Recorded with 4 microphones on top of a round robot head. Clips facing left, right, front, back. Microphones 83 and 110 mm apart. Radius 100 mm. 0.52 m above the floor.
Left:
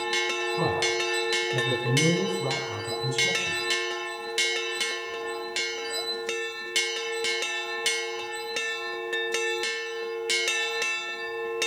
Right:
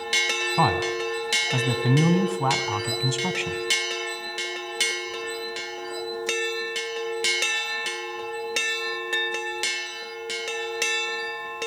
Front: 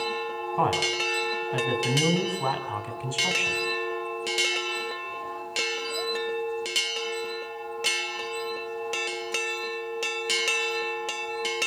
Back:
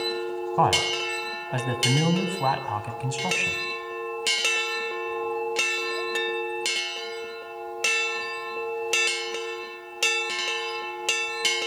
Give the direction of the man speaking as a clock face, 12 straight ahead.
4 o'clock.